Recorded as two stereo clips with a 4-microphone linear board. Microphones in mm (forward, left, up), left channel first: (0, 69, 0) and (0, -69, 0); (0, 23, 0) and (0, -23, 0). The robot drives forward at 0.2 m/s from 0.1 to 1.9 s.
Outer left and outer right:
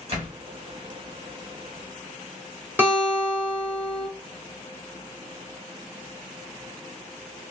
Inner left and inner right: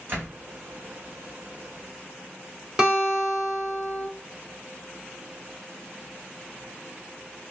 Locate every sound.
0.1 s a door slam: 45° right (ahead or behind), 1.9 m
2.8 s a guitar: 15° right (ahead or behind), 1.4 m